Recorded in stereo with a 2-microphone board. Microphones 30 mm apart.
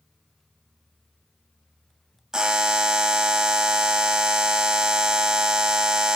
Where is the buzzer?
25° right (ahead or behind), 1.2 m.